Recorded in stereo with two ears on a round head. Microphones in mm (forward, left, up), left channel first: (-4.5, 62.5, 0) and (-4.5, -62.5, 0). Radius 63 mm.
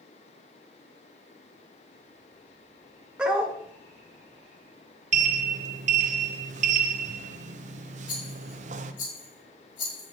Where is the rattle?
30° left (ahead or behind), 5.5 m.